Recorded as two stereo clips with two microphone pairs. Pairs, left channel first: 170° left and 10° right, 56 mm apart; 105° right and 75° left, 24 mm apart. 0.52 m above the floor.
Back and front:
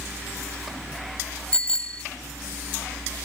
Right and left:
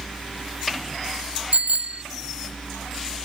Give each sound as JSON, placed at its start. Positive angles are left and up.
{"t": 1.5, "sound": "a bicycle bell", "azimuth_deg": 100}